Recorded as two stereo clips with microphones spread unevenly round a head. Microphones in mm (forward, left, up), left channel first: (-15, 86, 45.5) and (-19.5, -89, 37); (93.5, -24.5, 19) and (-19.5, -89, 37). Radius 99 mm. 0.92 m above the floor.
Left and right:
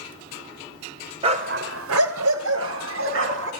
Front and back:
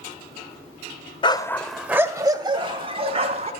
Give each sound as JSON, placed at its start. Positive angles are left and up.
{"t": 1.2, "sound": "a dog barking", "azimuth_deg": -25, "distance_m": 1.2}